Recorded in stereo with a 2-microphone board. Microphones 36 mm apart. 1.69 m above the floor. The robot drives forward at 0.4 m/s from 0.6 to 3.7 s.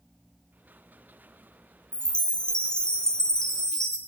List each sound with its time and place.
1.9 s a chime: 30° left (ahead or behind), 0.7 m; by 4.0 s 20° left (ahead or behind), 1.0 m